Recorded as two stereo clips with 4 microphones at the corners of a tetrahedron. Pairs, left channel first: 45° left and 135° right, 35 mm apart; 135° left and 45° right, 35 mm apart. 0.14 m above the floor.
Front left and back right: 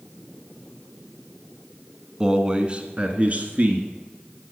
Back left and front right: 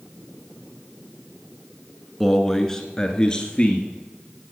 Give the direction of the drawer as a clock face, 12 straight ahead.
I don't hear a drawer.